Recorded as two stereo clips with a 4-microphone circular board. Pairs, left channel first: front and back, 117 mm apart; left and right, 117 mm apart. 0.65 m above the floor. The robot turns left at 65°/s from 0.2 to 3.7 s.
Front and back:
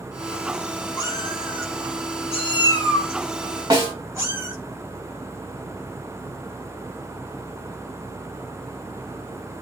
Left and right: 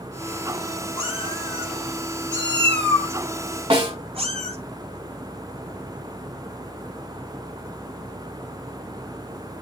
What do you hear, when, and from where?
1.0 s a cat meowing: 65° left, 3.5 m; by 4.6 s 115° right, 3.5 m
3.7 s a snare drum: 125° right, 2 m